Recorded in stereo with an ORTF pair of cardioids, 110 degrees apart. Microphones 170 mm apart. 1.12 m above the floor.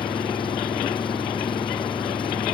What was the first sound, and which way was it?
An engine running, 30° left.